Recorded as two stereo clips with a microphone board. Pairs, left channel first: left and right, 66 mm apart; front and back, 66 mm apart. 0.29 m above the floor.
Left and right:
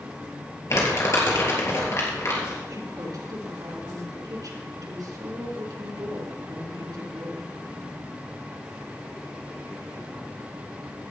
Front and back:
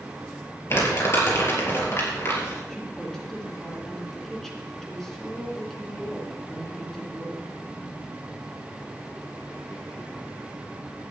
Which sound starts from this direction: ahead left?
Crumpling, at 0.7 s.